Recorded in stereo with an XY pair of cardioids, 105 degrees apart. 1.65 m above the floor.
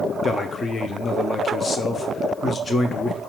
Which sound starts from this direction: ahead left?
A man speaking, at 0.2 s.